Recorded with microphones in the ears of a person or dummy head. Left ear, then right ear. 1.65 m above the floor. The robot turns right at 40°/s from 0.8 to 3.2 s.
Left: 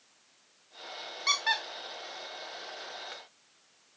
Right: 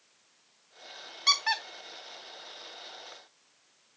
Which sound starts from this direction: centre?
A squeak, at 1.3 s.